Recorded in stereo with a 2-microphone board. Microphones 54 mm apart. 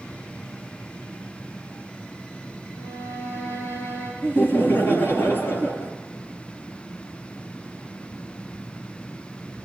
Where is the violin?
70° left (ahead or behind), 8 m.